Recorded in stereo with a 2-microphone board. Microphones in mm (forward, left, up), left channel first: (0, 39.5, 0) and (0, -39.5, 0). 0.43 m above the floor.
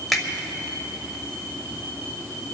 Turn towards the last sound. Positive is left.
turn(degrees=0)  # may be behind; listen again after turning